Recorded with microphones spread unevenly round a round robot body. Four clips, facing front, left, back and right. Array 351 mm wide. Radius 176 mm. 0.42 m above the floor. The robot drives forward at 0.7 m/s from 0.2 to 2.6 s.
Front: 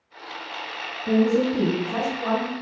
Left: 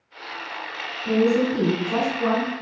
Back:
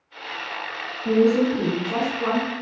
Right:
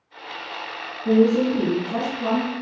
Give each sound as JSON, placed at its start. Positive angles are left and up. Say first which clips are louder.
{"t": 1.1, "sound": "a woman speaking", "louder": "right 2 dB, back 2 dB", "azimuth_deg": -170, "distance_m": 3.5}